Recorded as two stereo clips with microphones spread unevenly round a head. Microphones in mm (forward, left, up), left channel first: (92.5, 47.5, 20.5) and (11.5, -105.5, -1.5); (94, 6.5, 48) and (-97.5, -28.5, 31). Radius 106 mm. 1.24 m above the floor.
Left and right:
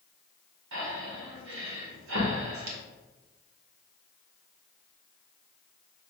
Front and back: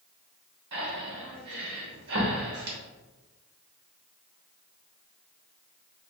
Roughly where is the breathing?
Behind right.